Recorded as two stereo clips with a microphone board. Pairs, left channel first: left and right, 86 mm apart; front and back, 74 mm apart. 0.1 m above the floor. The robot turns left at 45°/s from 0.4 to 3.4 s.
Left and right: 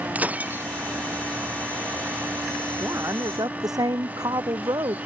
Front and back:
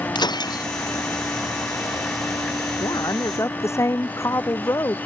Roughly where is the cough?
No cough in this recording.